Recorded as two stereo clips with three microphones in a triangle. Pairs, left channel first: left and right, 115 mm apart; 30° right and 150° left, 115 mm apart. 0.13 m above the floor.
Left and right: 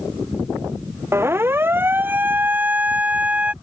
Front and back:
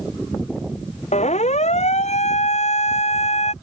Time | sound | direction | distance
1.1 | a siren | 20° right | ?